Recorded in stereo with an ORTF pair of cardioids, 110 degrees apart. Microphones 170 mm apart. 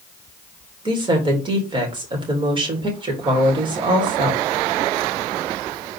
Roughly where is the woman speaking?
Ahead right.